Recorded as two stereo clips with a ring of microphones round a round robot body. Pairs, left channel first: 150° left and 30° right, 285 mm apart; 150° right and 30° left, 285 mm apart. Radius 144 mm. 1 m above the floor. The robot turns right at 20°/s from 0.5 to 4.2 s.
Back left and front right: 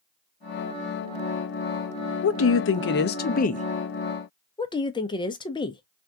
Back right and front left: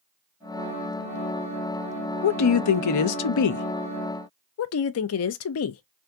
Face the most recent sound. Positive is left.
turn(degrees=-140)